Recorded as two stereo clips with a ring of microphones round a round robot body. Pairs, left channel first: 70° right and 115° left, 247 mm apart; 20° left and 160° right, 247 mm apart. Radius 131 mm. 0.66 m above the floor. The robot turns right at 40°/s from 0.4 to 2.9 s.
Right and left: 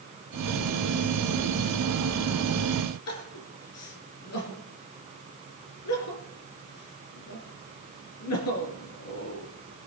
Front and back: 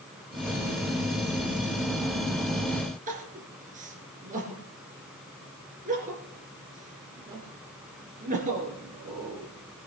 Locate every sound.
3.1 s crying: 95° right, 3.5 m